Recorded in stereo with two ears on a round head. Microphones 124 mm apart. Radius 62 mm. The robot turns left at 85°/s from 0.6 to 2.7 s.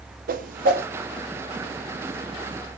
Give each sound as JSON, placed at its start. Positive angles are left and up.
{"t": 0.3, "sound": "a whoosh", "side_deg": -65, "distance_m": 0.6}